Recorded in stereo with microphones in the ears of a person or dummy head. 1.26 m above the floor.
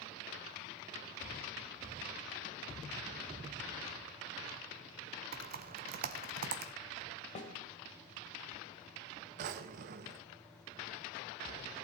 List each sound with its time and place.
5.3 s typing on a keyboard: 50° right (ahead or behind), 0.7 m
7.3 s a snare drum: 35° left (ahead or behind), 2 m
9.4 s a drawer: 45° right (ahead or behind), 0.6 m